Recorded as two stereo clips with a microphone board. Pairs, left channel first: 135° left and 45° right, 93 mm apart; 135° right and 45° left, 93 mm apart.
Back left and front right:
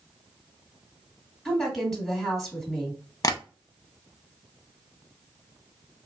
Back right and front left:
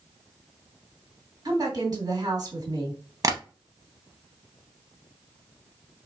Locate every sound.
1.4 s a woman speaking: 50° left, 2.0 m
3.2 s tapping: 90° left, 0.6 m